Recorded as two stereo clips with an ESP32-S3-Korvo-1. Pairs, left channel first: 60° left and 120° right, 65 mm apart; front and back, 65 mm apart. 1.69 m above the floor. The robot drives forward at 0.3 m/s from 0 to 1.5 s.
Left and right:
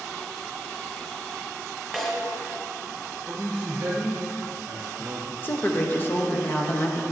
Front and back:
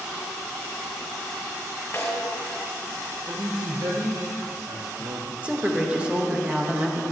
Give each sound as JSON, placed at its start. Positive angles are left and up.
{"t": 1.9, "sound": "a snare drum", "azimuth_deg": -25, "distance_m": 2.0}
{"t": 3.3, "sound": "a man speaking", "azimuth_deg": -175, "distance_m": 1.2}
{"t": 5.4, "sound": "a woman speaking", "azimuth_deg": 115, "distance_m": 1.0}